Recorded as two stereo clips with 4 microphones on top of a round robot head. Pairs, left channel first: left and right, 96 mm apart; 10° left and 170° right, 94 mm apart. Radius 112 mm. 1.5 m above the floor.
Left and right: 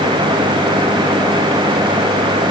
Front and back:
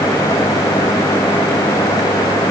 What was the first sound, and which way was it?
Only background noise.